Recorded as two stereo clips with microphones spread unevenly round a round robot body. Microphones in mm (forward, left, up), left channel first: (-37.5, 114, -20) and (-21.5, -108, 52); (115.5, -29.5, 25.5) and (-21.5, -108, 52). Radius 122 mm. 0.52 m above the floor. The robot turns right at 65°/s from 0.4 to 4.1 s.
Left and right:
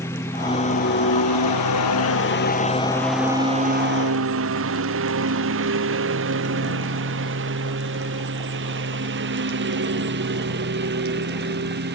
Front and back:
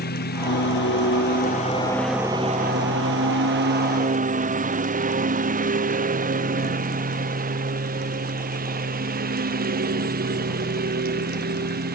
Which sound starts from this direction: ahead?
A lawn mower, at 0.0 s.